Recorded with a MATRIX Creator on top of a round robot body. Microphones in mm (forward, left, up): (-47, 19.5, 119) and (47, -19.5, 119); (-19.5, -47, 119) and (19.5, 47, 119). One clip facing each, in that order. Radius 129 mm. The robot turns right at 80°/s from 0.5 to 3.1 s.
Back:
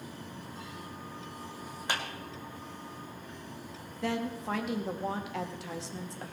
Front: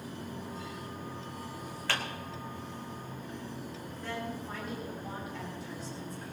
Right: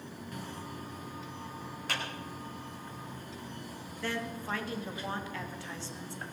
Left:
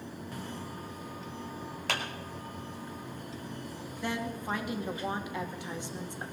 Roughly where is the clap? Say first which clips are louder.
Even, left 3 dB; left.